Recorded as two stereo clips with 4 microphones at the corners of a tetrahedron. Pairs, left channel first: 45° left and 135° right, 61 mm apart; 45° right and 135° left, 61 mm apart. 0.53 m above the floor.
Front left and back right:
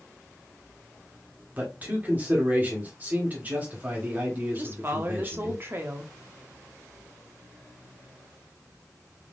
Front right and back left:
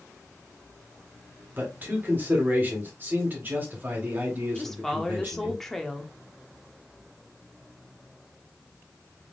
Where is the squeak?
I don't hear a squeak.